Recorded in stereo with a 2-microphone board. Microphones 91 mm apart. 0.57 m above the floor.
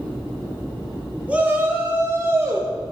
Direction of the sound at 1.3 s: 15° right (ahead or behind).